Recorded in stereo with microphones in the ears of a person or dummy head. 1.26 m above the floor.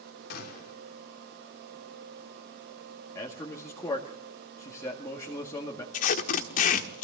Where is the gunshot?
55° left (ahead or behind), 3 m.